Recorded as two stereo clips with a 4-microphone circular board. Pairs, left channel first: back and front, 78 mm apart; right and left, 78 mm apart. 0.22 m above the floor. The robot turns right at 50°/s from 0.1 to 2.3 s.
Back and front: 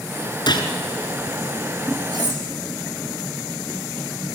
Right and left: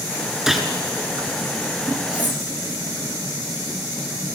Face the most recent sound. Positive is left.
turn(degrees=25)